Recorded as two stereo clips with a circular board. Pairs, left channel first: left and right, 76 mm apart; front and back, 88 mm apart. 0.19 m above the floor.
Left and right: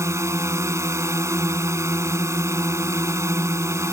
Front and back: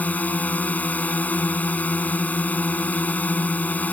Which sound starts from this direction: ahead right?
A drone, at 0.0 s.